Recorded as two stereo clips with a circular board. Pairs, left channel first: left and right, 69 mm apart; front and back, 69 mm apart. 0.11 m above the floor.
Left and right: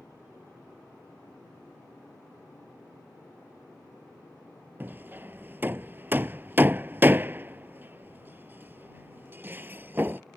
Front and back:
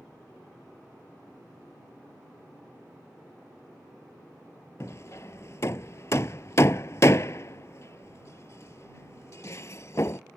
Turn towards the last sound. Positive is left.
turn(degrees=-35)